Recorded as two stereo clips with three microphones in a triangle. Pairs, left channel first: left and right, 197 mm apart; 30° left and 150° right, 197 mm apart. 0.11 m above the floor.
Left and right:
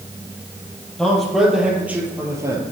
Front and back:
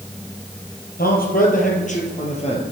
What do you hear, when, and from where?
1.0 s a man speaking: 5° left, 3 m; by 2.6 s 25° right, 2.5 m